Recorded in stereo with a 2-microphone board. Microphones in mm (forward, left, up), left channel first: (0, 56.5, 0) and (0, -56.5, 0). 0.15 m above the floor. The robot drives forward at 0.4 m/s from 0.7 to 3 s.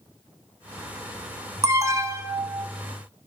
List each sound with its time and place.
1.6 s an alarm: 30° right (ahead or behind), 1.1 m; by 2.6 s 25° right (ahead or behind), 1.3 m